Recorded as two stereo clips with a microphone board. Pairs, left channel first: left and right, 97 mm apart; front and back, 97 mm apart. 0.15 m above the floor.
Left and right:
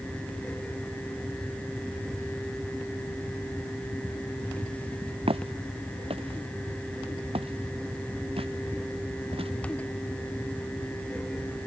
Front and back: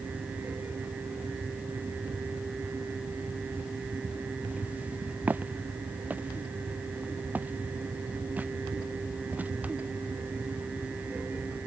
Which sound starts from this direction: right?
Footsteps, at 5.3 s.